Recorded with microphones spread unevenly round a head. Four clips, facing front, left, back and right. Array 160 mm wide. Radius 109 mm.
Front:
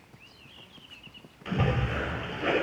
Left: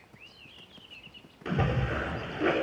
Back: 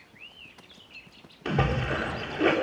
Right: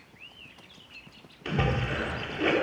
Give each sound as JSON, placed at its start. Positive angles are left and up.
{"t": 1.4, "sound": "a splash", "azimuth_deg": 170, "distance_m": 4.0}